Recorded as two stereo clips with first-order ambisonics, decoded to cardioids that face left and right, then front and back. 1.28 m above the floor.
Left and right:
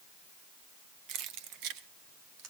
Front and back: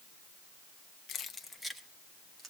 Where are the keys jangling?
55° right, 0.8 m; by 2.5 s 110° right, 1.8 m.